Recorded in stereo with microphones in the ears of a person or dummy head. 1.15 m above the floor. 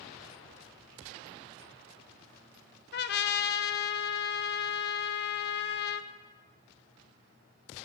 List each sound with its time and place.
2.9 s a trumpet: 45° left (ahead or behind), 0.7 m